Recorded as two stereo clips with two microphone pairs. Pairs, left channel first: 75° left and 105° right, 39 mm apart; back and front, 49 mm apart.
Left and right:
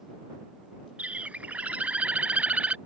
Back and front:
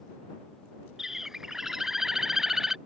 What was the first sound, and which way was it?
A bird, 75° right.